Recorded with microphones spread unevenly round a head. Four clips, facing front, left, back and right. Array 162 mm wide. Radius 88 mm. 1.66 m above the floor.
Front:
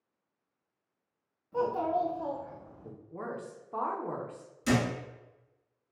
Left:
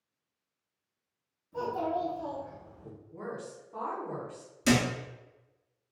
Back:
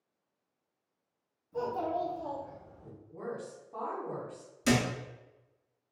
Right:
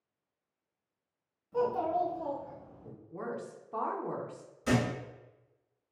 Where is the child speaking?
25° right, 1.4 m; by 2.9 s 10° left, 0.8 m.